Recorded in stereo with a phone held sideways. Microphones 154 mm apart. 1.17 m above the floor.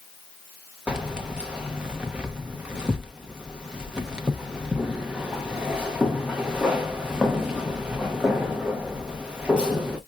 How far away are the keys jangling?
About 0.8 m.